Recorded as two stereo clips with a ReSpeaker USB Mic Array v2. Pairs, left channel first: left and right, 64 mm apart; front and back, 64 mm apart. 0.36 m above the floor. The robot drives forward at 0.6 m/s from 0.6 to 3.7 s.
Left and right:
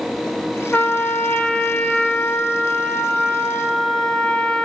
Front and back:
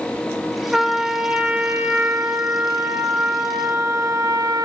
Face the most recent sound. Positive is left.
turn(degrees=165)